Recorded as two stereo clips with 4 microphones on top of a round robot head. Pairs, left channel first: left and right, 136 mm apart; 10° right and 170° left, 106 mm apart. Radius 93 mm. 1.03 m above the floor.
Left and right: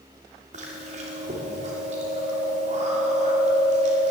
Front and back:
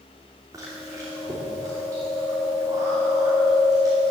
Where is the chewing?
125° right, 2.5 m.